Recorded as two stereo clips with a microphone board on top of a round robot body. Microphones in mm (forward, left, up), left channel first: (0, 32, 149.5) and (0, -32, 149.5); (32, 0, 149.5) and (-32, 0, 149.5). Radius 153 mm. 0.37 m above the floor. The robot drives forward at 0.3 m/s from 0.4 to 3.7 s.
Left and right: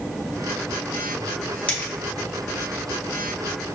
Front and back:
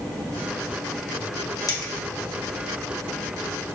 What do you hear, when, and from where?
1.7 s a dropped coin: 20° left, 1.5 m